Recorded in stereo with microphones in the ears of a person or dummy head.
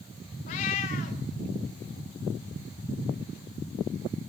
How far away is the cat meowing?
About 0.9 m.